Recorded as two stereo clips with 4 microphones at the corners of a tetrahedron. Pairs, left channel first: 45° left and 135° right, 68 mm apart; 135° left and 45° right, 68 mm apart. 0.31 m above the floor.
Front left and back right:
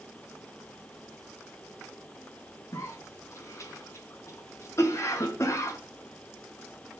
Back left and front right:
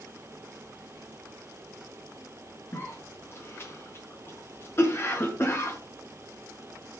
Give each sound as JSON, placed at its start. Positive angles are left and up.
{"t": 2.7, "sound": "a cough", "azimuth_deg": 85, "distance_m": 4.5}